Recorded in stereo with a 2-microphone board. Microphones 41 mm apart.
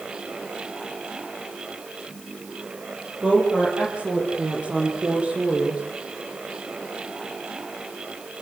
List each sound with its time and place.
3.2 s a woman speaking: 25° right (ahead or behind), 9.5 m; by 5.8 s 35° right (ahead or behind), 8 m